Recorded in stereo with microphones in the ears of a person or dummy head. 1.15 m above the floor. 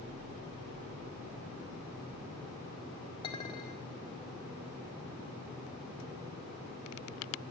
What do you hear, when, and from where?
3.2 s a clink: 25° left (ahead or behind), 1.9 m